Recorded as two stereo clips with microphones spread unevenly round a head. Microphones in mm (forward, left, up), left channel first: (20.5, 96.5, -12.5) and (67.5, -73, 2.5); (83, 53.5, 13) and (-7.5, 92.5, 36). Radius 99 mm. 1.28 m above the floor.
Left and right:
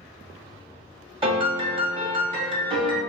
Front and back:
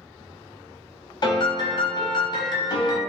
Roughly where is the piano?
Ahead.